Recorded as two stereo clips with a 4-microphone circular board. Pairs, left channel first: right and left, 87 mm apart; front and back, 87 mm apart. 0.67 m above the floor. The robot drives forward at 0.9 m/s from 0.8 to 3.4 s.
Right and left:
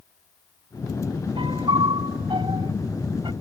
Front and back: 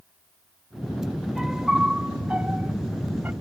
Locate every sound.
1.4 s a piano: 95° left; by 3.3 s 110° left